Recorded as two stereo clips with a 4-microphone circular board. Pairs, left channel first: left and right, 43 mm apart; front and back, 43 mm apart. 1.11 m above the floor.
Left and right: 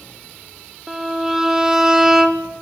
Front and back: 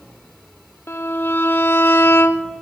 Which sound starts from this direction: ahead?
A violin, at 0.9 s.